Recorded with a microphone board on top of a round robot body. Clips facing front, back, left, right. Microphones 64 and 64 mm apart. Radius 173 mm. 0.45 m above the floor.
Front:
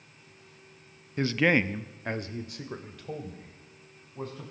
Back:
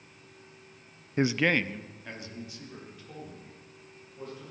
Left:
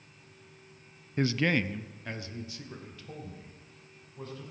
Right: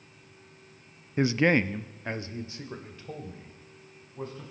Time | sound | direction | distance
1.2 | a man speaking | 150° right | 0.7 m